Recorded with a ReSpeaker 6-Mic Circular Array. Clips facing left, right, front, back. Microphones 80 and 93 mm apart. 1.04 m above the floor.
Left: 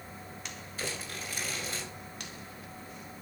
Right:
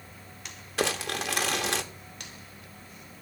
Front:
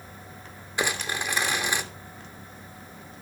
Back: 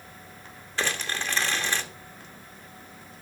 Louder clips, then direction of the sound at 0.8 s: Right 10 dB, front 1 dB; 75° right.